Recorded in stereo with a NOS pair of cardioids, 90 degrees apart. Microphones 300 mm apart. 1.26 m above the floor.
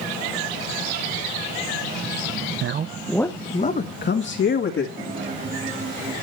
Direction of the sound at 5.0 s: 25° right.